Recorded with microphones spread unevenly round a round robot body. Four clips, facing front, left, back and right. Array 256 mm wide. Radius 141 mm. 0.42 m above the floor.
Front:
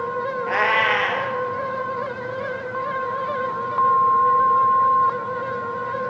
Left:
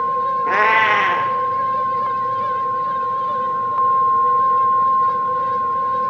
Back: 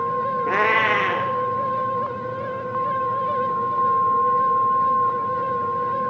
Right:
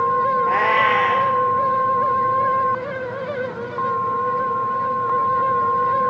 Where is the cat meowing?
160° left, 0.7 m.